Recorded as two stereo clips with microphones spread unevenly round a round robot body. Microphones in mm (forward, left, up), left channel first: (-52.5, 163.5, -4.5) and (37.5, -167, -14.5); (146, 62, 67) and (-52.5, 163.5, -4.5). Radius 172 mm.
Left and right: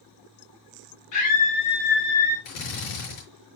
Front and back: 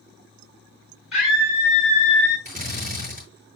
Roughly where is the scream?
Ahead left.